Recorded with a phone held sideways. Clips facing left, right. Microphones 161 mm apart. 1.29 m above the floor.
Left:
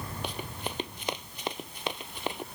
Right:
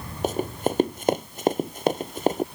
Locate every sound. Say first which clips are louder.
0.2 s running footsteps: right 15 dB; 45° right (ahead or behind)